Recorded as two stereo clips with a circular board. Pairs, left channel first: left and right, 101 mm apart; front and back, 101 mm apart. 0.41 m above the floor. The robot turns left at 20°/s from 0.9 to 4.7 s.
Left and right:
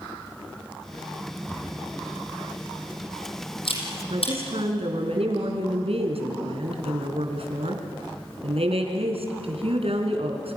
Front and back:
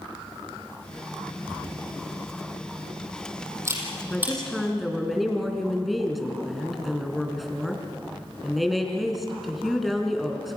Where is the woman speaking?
80° right, 4.5 m; by 10.6 s 90° right, 4.5 m.